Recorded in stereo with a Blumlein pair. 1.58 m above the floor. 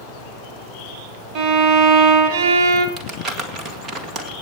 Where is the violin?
35° right, 1.8 m.